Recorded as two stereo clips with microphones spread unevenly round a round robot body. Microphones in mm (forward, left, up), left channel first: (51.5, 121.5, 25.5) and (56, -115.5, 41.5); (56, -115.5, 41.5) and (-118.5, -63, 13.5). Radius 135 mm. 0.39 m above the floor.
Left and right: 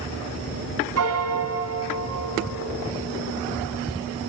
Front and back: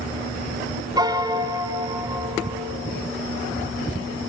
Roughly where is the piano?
Behind right.